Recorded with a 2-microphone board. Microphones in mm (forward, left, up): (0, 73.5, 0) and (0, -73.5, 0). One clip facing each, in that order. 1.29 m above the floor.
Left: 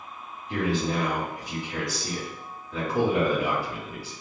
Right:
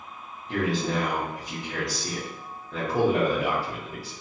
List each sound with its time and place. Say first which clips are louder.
0.5 s a man speaking: even; 45° right (ahead or behind), 1.3 m